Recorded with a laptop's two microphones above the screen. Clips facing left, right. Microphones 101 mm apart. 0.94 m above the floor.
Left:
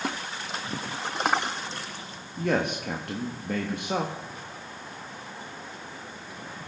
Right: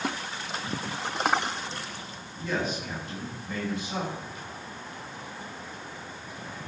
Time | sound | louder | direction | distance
2.4 | a man speaking | left 4 dB | 60° left (ahead or behind) | 1.3 m